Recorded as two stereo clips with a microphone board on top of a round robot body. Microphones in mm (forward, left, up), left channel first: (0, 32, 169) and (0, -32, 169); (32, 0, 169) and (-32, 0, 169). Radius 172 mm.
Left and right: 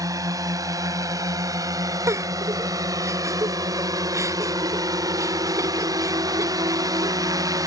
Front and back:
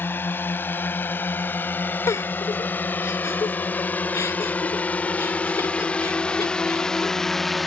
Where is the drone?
60° right; by 7.7 s 90° right.